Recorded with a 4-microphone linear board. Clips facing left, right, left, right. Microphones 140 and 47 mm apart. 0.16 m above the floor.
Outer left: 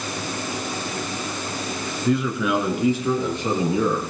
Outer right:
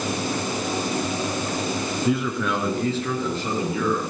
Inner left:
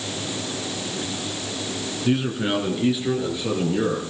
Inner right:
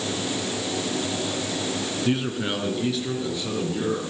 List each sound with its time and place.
2.0 s a man speaking: 5° right (ahead or behind), 1.9 m; by 4.0 s 25° left (ahead or behind), 4 m